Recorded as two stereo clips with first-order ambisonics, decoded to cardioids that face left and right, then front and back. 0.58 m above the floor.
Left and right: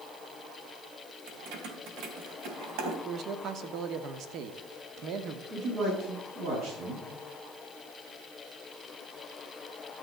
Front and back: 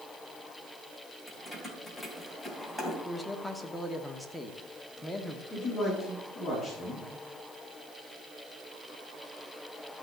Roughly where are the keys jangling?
Right.